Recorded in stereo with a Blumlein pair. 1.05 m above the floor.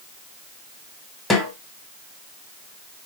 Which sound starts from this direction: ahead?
A snare drum, at 1.3 s.